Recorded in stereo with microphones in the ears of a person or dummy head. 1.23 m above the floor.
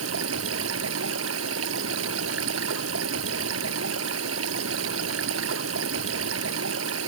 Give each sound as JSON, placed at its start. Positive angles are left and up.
{"t": 0.0, "sound": "running water", "side_deg": -80}